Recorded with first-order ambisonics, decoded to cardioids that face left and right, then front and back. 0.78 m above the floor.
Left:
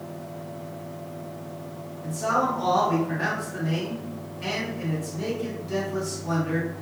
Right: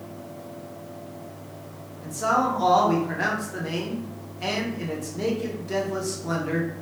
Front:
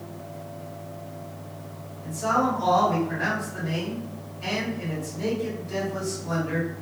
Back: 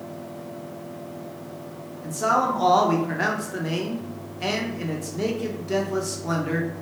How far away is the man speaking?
About 0.6 m.